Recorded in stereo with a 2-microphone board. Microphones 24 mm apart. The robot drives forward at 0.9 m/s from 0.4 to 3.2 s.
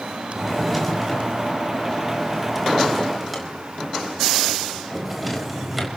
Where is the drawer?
5° right (ahead or behind), 7 m.